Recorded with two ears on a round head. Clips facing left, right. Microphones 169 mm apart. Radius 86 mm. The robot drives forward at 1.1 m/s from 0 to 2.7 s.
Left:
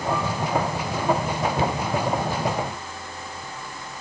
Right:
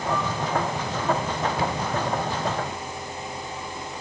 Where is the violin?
I don't hear a violin.